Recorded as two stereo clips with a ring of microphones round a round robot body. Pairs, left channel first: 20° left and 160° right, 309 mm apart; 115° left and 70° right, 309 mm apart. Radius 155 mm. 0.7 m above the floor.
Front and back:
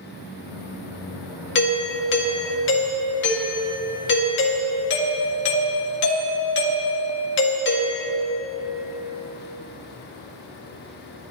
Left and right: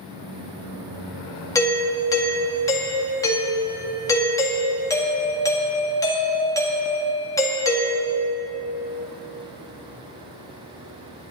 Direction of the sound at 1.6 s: 40° left.